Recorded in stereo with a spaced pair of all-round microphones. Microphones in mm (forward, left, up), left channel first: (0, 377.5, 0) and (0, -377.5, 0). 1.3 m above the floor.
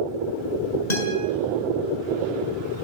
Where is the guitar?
65° left (ahead or behind), 7 m.